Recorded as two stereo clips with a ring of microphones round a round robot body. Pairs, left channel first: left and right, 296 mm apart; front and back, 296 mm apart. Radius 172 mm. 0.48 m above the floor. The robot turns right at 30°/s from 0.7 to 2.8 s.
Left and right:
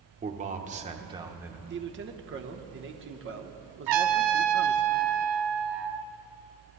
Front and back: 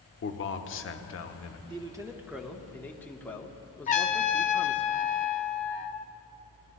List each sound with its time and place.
0.2 s a man speaking: 30° right, 1.0 m; by 1.6 s 5° right, 1.0 m
1.7 s a man speaking: 115° right, 1.0 m; by 4.9 s 80° right, 1.0 m
3.9 s a trumpet: 65° right, 0.6 m